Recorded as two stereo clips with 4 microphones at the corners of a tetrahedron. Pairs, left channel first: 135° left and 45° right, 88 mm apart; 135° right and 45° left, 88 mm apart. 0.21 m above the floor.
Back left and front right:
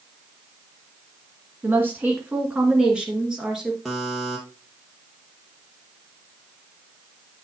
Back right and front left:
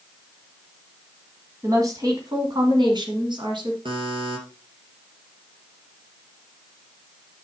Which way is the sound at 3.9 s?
45° left.